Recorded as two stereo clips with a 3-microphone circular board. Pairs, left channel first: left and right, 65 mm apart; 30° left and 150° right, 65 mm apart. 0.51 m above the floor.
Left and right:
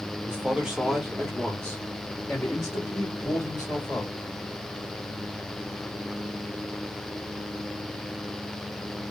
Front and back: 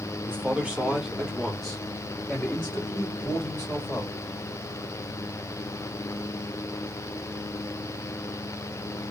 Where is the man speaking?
125° right, 1.0 m; by 4.1 s 80° left, 2.0 m.